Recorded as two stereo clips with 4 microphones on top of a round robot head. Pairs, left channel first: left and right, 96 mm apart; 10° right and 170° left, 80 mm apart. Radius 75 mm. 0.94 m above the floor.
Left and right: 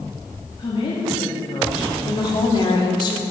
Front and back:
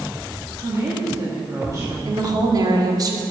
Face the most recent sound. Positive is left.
turn(degrees=130)